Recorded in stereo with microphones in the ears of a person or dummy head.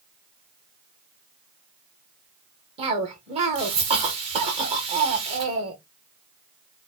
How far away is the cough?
About 1.0 m.